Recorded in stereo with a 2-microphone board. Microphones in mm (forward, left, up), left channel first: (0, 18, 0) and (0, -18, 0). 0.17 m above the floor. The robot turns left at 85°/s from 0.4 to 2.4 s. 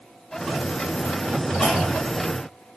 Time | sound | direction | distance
1.6 | a clunk | 120° left | 0.8 m